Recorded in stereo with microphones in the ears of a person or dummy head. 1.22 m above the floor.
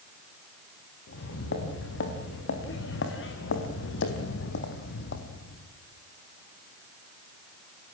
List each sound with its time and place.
1.1 s footsteps: 70° left (ahead or behind), 5.5 m; by 5.7 s 50° left (ahead or behind), 2.5 m